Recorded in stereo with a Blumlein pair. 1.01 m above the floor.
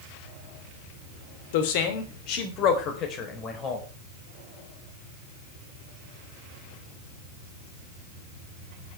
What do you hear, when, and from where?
1.5 s a man speaking: 50° left, 2.5 m; by 3.9 s 25° left, 4 m